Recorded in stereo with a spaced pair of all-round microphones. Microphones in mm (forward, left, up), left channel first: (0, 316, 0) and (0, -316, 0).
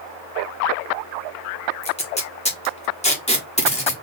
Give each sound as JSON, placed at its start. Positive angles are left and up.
{"t": 1.8, "sound": "tape being pulled", "side_deg": 10, "distance_m": 1.4}